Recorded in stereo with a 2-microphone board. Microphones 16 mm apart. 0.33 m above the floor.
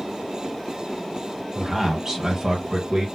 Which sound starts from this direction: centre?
A man speaking, at 1.6 s.